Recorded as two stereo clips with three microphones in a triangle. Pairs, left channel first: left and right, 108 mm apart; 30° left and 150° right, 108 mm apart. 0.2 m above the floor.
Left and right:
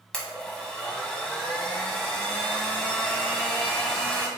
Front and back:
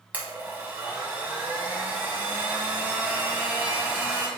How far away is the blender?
About 0.9 m.